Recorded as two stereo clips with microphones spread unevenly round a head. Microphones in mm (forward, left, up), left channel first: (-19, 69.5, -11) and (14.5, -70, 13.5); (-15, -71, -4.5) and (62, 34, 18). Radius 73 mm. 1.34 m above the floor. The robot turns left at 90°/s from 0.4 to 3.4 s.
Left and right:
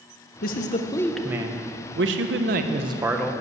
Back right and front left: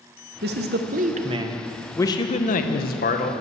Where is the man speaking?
85° left, 1.0 m; by 3.3 s 175° right, 1.0 m.